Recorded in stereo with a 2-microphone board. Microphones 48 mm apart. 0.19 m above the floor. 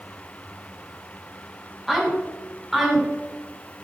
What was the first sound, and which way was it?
A woman speaking, 5° right (ahead or behind).